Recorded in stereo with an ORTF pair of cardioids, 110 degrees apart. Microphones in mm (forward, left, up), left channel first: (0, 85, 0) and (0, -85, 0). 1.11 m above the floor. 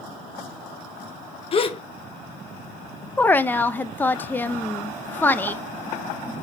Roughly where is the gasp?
Ahead left.